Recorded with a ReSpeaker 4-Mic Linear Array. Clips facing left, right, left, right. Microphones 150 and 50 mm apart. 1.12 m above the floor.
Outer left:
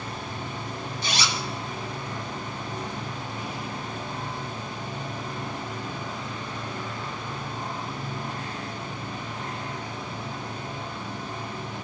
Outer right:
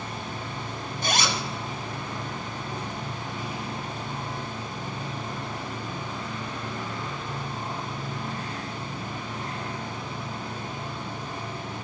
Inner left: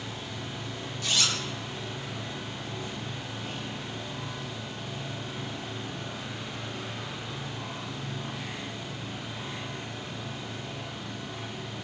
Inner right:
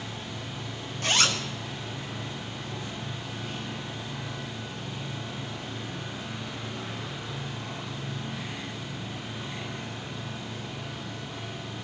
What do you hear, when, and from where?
1.0 s a zipper: 50° right (ahead or behind), 0.9 m